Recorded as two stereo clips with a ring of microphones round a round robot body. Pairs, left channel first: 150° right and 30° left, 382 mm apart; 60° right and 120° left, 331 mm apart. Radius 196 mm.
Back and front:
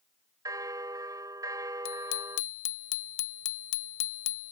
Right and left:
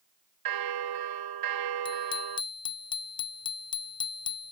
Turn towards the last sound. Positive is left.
turn(degrees=-140)